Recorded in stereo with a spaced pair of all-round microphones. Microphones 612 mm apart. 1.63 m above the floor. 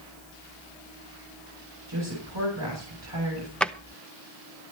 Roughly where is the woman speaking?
Right.